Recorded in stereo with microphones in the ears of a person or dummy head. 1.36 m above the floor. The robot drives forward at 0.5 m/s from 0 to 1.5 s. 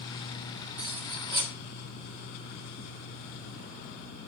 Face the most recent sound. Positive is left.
turn(degrees=-30)  # may be behind; listen again after turning